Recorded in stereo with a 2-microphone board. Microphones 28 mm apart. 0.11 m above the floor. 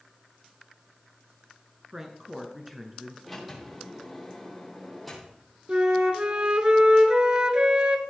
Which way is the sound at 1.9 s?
20° right (ahead or behind).